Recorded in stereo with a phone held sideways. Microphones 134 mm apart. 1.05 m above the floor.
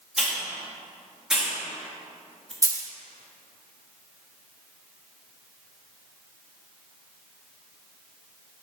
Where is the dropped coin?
25° right (ahead or behind), 0.6 m.